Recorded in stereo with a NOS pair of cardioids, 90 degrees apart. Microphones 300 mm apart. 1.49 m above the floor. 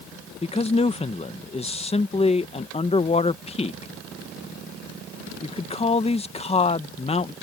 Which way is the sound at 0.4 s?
20° left.